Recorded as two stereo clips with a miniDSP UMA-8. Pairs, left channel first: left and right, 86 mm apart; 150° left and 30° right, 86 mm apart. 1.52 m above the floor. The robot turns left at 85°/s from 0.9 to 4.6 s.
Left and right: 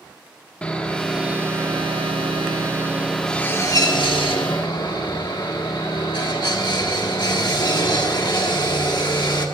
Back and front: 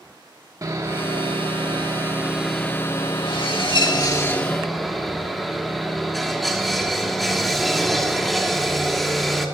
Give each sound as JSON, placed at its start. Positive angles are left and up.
{"t": 0.6, "sound": "sawing", "azimuth_deg": 15, "distance_m": 1.5}